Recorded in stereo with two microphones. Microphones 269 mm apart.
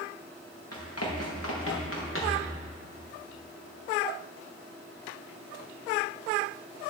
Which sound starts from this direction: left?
Running footsteps, at 0.7 s.